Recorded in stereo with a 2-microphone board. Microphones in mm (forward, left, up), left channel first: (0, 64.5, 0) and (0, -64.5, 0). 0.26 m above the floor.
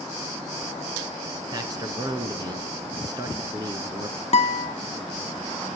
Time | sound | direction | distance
1.5 | a man speaking | 30° right (ahead or behind) | 2.5 m
4.3 | a guitar | 55° left (ahead or behind) | 0.9 m